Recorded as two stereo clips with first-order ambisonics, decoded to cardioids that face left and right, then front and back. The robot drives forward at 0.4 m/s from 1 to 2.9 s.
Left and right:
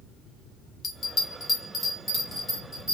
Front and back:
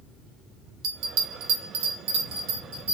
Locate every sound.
0.8 s a bell: 160° left, 0.7 m; by 2.9 s 170° left, 1.4 m